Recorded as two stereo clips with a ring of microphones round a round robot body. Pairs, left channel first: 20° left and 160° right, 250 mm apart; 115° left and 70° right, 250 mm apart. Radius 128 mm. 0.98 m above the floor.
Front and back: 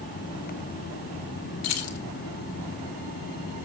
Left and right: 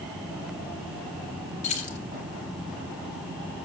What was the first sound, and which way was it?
Keys jangling, 50° left.